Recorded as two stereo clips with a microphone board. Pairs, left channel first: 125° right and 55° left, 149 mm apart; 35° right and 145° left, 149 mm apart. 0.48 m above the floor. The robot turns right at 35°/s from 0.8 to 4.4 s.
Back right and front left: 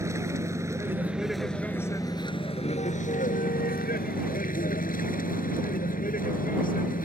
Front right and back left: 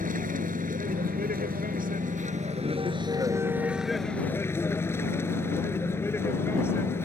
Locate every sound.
0.0 s a vehicle: 125° left; by 7.0 s 110° right